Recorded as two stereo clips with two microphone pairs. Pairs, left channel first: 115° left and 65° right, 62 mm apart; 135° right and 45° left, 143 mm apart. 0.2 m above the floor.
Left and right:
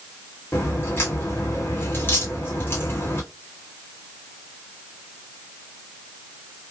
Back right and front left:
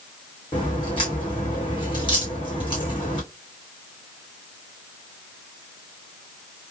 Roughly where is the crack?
Behind.